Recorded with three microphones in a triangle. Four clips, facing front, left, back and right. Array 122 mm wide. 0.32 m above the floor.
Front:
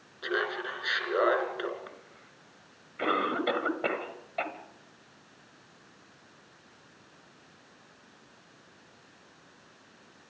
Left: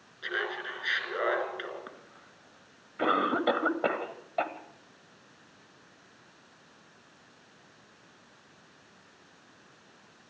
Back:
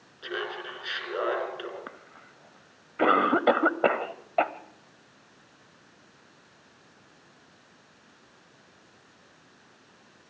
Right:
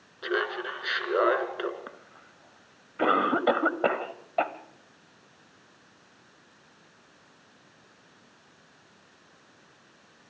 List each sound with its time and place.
0.2 s laughter: 80° right, 3.5 m
1.9 s a cough: 150° right, 1.4 m